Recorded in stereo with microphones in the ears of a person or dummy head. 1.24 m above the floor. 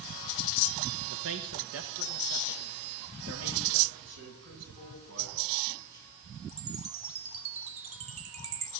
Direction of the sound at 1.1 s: 70° right (ahead or behind).